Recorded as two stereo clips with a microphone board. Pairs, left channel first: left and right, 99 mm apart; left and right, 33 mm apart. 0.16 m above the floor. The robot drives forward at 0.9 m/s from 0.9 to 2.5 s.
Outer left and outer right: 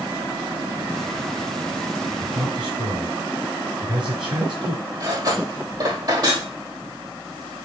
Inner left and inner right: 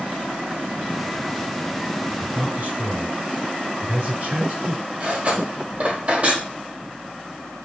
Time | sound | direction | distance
2.2 | a man speaking | 55° right (ahead or behind) | 3 m
5.0 | cutlery clinking | 45° right (ahead or behind) | 3 m